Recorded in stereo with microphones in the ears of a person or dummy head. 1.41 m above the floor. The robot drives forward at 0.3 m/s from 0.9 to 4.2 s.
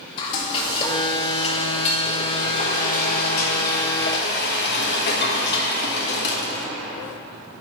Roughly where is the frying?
Left.